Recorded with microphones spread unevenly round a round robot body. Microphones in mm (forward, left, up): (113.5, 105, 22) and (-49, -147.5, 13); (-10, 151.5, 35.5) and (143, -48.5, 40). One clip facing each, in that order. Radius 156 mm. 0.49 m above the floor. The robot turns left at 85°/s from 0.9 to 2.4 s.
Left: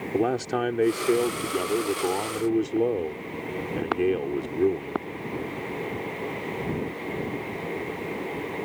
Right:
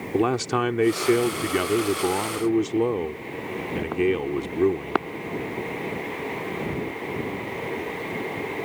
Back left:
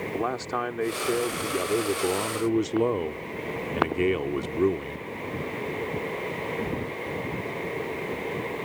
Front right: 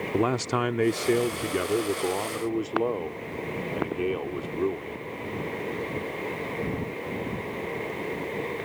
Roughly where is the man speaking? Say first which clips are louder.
Right 2 dB, front right 7 dB; ahead right.